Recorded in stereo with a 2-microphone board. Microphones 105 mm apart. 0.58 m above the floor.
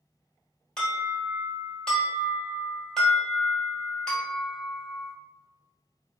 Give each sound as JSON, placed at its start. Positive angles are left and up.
{"t": 0.8, "sound": "an alarm", "side_deg": 5, "distance_m": 1.5}